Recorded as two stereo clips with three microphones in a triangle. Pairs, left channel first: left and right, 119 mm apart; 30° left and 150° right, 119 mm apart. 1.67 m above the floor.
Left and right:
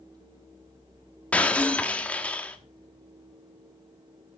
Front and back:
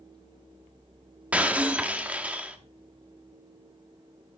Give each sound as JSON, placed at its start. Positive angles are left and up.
{"t": 1.3, "sound": "breaking glass", "azimuth_deg": 150, "distance_m": 1.2}